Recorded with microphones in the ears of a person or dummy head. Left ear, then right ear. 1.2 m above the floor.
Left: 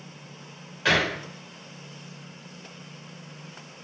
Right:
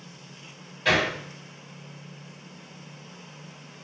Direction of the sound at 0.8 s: 45° left (ahead or behind).